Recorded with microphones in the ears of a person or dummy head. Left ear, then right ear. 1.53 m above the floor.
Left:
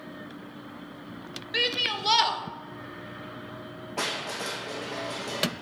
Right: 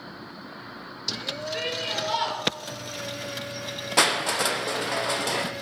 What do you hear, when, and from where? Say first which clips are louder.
1.5 s a shout: left 5 dB; 45° left (ahead or behind), 1.2 m
4.0 s crushing: right 9 dB; 55° right (ahead or behind), 0.5 m